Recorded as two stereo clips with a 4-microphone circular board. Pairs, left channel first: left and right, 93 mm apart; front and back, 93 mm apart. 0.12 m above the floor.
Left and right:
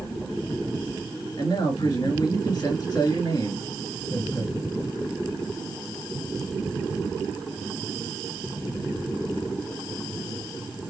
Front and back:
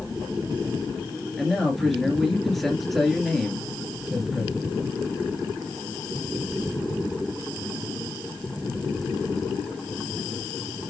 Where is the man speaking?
90° left, 2 m.